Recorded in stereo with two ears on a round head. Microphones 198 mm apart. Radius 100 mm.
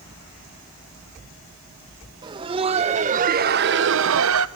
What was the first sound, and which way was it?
Laughter, 20° right (ahead or behind).